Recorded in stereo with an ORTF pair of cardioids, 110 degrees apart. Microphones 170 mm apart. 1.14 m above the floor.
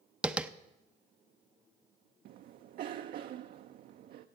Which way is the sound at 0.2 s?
5° right.